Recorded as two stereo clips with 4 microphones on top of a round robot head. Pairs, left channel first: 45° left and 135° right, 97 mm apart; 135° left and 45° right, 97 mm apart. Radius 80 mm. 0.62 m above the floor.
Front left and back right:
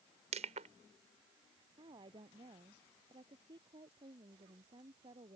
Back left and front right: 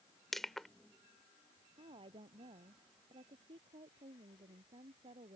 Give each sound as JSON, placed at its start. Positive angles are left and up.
{"t": 0.3, "sound": "crushing", "azimuth_deg": -135}
{"t": 1.8, "sound": "a woman speaking", "azimuth_deg": -85}